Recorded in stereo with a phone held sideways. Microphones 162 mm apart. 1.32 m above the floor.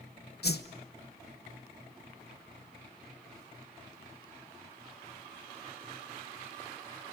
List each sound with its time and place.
0.4 s a whoosh: 85° left, 0.8 m